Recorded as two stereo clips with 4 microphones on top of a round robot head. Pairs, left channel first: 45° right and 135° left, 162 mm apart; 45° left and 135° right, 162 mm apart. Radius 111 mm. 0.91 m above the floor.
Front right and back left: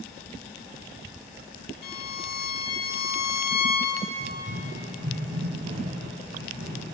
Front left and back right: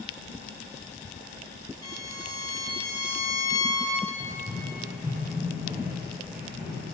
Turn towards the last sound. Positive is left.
turn(degrees=150)